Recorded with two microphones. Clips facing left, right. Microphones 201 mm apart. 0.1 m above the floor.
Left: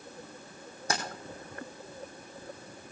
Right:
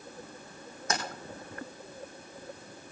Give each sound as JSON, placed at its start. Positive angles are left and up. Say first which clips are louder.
{"t": 0.9, "sound": "keys jangling", "louder": "even", "side_deg": 30, "distance_m": 3.5}